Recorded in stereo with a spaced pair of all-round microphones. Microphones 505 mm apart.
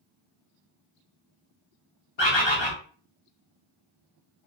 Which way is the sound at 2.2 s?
60° left (ahead or behind).